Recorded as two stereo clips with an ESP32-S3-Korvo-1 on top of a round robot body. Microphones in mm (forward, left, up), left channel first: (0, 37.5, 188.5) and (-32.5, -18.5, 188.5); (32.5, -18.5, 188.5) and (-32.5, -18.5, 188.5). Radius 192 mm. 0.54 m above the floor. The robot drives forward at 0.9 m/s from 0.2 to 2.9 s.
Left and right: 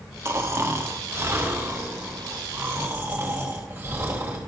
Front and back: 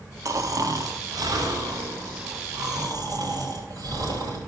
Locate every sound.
0.2 s snoring: 160° right, 1.3 m; by 4.4 s 175° right, 3.5 m